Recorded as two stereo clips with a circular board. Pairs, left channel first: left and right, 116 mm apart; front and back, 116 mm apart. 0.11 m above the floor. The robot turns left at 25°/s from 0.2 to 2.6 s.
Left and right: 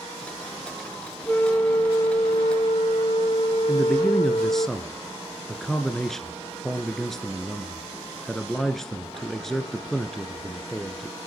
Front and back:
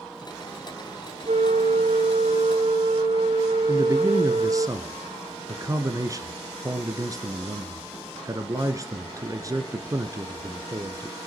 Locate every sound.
1.3 s a flute: 165° left, 0.7 m; by 4.7 s 130° left, 0.7 m
3.7 s a man speaking: 175° left, 1.3 m